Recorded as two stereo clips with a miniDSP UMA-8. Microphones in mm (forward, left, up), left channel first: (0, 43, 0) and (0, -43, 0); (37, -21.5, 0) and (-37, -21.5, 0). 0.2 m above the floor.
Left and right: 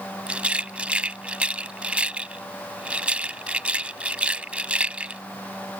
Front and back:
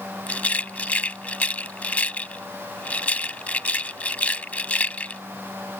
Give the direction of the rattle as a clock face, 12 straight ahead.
1 o'clock.